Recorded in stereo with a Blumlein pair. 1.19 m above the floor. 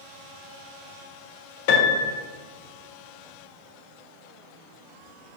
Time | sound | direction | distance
1.7 | a piano | 50° left | 0.6 m